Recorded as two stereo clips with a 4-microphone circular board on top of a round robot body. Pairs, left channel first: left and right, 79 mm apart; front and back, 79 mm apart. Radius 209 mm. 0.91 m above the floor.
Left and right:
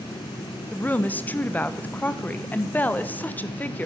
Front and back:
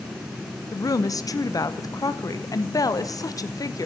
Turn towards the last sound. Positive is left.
turn(degrees=25)